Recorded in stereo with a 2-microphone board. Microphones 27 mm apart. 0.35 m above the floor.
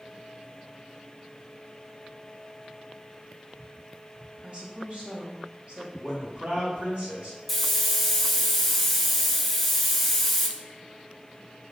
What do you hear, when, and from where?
4.4 s a woman speaking: 45° right (ahead or behind), 1.3 m
6.0 s a man speaking: 50° right (ahead or behind), 2 m
7.5 s a hiss: centre (ahead or behind), 0.6 m